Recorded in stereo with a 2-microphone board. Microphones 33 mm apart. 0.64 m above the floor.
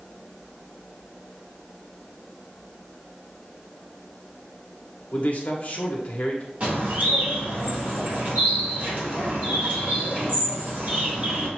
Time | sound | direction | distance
5.1 | a man speaking | 45° left (ahead or behind) | 1.2 m
6.6 | a bird | 45° right (ahead or behind) | 2.5 m